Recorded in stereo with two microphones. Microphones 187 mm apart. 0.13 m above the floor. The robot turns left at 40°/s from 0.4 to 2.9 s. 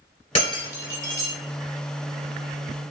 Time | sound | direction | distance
0.3 | breaking glass | 30° left (ahead or behind) | 1.6 m